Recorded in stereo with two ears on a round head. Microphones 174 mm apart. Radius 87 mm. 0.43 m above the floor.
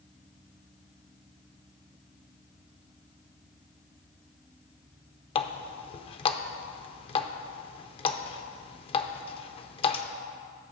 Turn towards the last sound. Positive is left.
turn(degrees=30)  # may be behind; listen again after turning